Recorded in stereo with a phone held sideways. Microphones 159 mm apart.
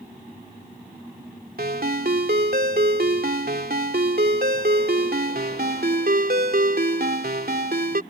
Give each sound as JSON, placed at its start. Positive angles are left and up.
{"t": 1.6, "sound": "a ringtone", "side_deg": -75}